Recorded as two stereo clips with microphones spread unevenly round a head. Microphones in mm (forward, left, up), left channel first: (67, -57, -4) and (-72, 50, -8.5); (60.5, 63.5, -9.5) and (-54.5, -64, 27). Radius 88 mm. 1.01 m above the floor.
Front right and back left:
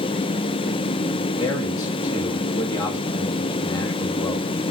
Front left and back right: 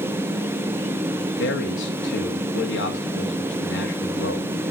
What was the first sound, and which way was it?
A man speaking, 35° left.